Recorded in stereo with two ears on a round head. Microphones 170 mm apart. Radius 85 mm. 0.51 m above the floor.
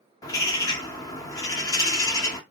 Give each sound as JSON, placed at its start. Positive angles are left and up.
{"t": 0.2, "sound": "a bird", "side_deg": 20, "distance_m": 0.7}